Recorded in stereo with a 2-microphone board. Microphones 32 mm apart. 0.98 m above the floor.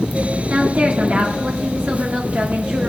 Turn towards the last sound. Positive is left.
turn(degrees=-60)  # may be behind; listen again after turning